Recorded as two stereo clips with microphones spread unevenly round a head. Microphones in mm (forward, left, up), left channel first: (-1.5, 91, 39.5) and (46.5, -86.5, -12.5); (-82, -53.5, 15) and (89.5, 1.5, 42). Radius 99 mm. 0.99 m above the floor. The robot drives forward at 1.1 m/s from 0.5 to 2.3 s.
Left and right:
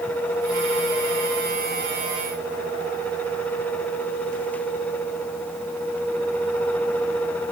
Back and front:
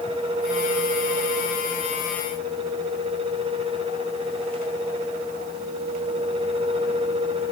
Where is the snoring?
No snoring in this recording.